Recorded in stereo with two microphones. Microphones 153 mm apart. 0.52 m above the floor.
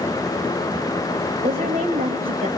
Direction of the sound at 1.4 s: 70° right (ahead or behind).